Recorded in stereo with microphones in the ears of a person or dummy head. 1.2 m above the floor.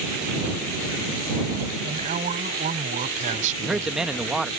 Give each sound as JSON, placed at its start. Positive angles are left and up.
{"t": 1.8, "sound": "a man speaking", "side_deg": -45}
{"t": 3.6, "sound": "a man speaking", "side_deg": -5}